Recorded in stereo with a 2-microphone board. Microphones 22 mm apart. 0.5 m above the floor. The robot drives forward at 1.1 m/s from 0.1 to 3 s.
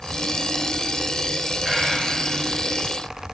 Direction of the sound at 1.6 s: 10° right (ahead or behind).